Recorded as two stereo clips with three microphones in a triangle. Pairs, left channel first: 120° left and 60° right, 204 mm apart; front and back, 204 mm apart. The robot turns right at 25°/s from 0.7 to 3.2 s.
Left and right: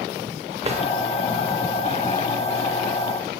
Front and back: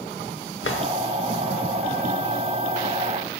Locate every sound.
0.6 s a drawer: straight ahead, 0.7 m; by 0.8 s 5° left, 0.7 m